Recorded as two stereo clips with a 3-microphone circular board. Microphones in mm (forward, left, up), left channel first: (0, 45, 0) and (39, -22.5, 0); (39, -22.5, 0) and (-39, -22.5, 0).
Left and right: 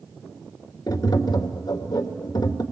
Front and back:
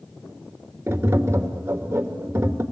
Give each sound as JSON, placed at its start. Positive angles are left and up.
{"t": 0.9, "sound": "tapping", "azimuth_deg": 130, "distance_m": 1.8}